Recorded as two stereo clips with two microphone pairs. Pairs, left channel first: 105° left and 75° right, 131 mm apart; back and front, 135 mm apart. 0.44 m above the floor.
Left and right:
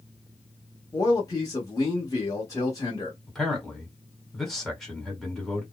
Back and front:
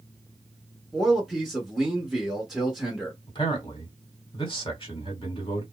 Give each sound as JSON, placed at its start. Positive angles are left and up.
{"t": 0.9, "sound": "a man speaking", "azimuth_deg": 85, "distance_m": 1.1}
{"t": 3.3, "sound": "a man speaking", "azimuth_deg": -170, "distance_m": 1.8}